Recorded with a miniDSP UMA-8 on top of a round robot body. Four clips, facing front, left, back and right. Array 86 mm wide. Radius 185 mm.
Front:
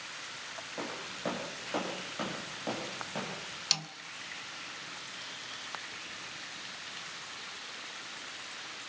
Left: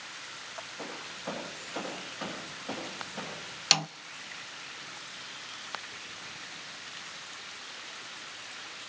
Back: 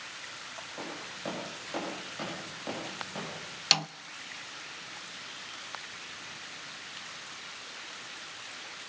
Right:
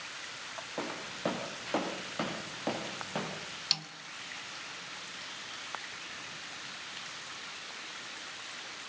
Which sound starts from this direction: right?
Footsteps, at 0.8 s.